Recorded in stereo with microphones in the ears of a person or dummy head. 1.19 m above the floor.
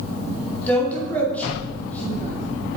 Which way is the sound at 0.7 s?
10° left (ahead or behind).